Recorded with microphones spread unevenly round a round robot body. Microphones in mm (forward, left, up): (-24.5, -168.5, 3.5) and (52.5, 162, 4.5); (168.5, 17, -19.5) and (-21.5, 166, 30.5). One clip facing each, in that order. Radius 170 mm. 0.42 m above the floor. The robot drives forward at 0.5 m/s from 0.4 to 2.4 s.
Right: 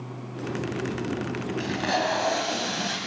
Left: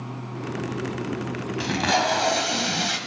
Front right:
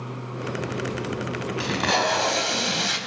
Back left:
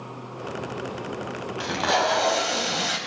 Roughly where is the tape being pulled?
Ahead.